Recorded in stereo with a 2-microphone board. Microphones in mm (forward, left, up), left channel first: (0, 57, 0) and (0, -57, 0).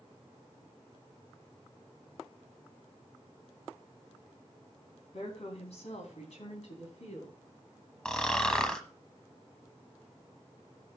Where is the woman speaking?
60° left (ahead or behind), 3.5 m; by 7.4 s 70° left (ahead or behind), 4 m.